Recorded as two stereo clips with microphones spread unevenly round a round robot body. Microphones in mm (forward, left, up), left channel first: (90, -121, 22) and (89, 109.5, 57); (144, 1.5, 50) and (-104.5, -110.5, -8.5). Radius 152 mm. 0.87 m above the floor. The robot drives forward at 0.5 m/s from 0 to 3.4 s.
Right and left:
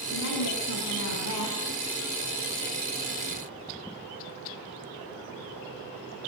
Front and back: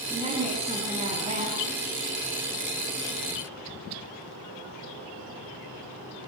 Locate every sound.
0.1 s a woman speaking: 85° right, 8.5 m; by 1.6 s 90° right, 8.5 m